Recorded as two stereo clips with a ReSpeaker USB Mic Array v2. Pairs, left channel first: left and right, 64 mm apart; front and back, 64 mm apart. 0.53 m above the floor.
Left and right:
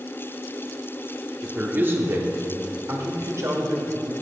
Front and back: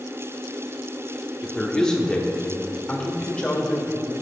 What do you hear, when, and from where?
1.4 s a man speaking: 70° right, 1.0 m